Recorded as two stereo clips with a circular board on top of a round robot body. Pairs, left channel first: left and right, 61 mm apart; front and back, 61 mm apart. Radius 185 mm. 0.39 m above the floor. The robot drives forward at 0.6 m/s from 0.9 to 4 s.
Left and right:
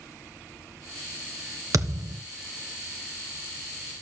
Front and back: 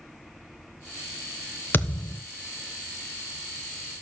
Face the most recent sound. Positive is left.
turn(degrees=-135)